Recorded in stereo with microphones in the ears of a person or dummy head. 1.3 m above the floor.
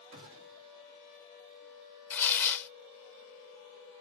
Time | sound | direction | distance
0.1 | a gunshot | 70° right (ahead or behind) | 1.4 m
2.1 | tearing paper | 15° left (ahead or behind) | 0.6 m